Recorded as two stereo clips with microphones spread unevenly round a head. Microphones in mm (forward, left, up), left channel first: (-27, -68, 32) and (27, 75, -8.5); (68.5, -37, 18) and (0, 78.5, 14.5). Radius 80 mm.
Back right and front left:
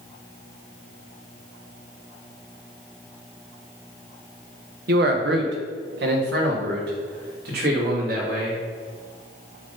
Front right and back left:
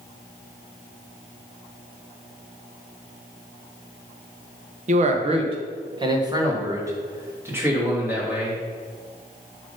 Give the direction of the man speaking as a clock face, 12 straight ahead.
9 o'clock.